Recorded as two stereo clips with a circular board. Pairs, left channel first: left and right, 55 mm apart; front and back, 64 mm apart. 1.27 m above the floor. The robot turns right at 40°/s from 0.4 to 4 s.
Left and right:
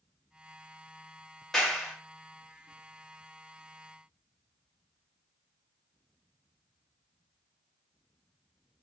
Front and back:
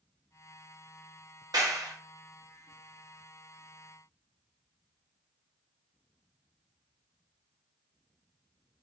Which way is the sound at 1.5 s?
175° left.